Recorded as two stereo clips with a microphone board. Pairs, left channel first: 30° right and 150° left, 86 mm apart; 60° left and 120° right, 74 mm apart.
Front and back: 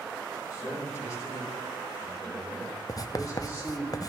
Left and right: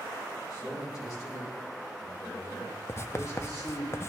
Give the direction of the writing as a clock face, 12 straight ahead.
12 o'clock.